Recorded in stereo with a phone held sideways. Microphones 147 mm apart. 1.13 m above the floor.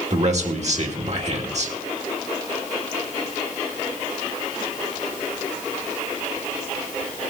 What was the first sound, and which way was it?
A man speaking, 55° right (ahead or behind).